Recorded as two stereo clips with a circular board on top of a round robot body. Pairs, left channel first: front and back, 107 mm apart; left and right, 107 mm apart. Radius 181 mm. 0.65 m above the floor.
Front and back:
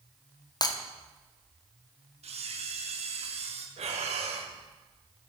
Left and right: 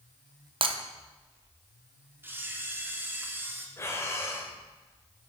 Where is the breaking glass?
50° right, 0.9 m.